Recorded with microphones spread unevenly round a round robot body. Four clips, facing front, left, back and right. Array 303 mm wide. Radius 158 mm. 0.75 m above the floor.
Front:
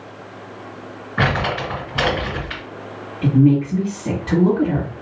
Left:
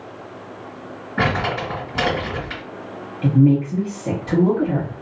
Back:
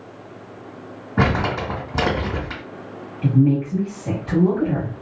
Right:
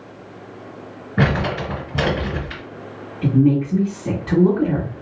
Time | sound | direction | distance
1.2 | crumpling | 135° right | 1.8 m
3.2 | a woman speaking | 35° right | 1.5 m